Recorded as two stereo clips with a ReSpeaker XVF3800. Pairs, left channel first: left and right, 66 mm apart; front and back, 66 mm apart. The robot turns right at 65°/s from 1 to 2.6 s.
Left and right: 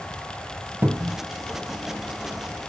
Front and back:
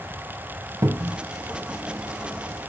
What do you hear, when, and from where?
0.8 s a cupboard door: 145° right, 0.8 m; by 1.2 s 130° right, 0.8 m